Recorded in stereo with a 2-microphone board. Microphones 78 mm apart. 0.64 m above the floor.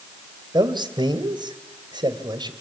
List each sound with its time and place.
0.5 s a man speaking: 65° right (ahead or behind), 2.5 m